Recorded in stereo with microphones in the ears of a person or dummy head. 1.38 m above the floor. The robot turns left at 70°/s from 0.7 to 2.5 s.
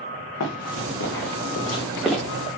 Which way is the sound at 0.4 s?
70° left (ahead or behind).